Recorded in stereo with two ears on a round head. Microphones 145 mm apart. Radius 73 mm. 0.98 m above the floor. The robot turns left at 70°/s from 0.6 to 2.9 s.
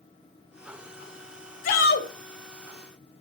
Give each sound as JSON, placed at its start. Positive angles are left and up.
{"t": 1.6, "sound": "a shout", "azimuth_deg": 125, "distance_m": 1.5}